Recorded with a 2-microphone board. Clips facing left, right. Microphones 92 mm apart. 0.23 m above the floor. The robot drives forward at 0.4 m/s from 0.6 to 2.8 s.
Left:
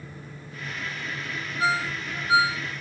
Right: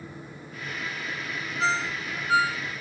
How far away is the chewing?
I don't hear chewing.